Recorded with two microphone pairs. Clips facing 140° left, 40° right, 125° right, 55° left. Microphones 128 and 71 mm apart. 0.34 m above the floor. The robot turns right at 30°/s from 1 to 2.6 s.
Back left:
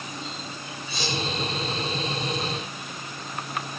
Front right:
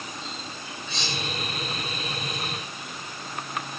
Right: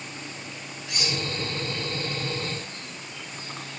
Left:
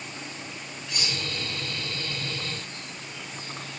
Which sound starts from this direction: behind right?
Cutlery clinking, at 0.9 s.